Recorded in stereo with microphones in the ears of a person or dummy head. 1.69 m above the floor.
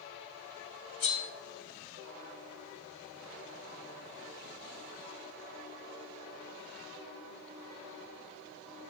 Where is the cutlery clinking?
60° left (ahead or behind), 1.6 m.